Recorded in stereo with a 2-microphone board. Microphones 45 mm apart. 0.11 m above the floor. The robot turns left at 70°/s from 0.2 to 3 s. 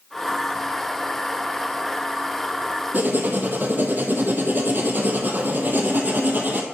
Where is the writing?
40° right (ahead or behind), 0.9 m; by 6.6 s 45° right (ahead or behind), 0.9 m.